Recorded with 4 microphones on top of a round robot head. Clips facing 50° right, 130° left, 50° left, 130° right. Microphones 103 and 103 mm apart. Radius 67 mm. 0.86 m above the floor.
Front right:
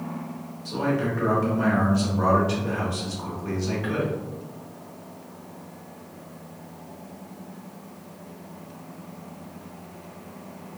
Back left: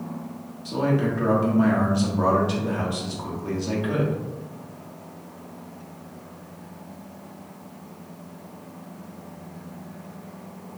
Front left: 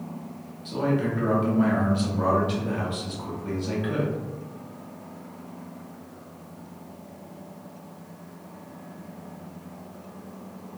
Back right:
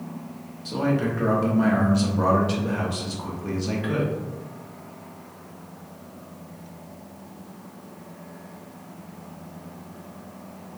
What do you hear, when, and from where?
0.7 s a man speaking: 165° right, 1.0 m